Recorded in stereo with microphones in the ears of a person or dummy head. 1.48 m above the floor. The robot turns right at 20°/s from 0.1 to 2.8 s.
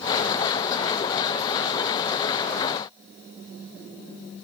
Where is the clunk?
I don't hear a clunk.